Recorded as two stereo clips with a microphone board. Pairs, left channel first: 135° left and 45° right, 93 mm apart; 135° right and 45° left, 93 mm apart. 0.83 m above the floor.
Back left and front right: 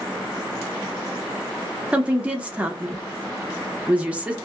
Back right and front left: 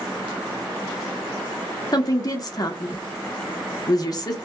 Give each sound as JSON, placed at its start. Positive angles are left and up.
{"t": 1.9, "sound": "a woman speaking", "azimuth_deg": -115, "distance_m": 0.9}